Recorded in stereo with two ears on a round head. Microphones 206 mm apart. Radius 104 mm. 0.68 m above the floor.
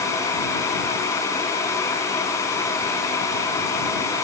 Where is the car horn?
No car horn in this recording.